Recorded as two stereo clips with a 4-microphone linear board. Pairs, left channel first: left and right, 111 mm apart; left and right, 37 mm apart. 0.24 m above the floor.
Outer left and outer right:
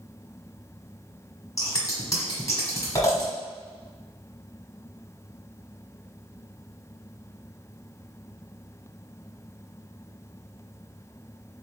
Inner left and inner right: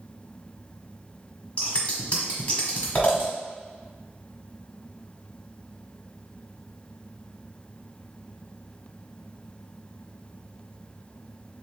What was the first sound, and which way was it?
Scissors, 30° left (ahead or behind).